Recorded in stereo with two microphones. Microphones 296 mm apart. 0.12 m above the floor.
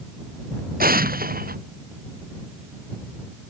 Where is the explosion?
30° right (ahead or behind).